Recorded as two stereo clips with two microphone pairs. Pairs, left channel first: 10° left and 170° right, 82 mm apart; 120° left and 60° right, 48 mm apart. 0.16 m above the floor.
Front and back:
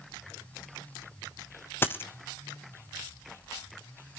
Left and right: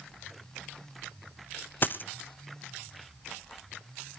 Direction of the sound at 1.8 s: 75° left.